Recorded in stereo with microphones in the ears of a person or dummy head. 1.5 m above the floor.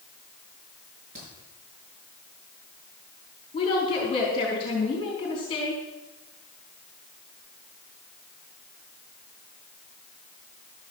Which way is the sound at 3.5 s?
25° left (ahead or behind).